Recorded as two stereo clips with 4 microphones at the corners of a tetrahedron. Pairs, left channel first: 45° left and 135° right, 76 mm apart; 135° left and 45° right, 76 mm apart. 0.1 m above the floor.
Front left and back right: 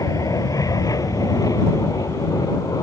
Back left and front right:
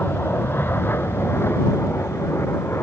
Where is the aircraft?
75° left; by 2.8 s 80° left.